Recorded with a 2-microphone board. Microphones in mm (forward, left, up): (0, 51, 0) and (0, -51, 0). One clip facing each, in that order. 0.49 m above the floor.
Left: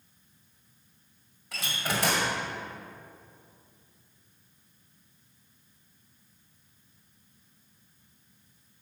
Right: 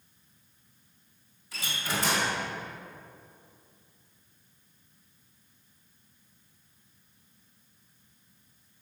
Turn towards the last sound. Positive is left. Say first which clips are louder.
# left 2 dB
turn(degrees=70)  # may be behind; listen again after turning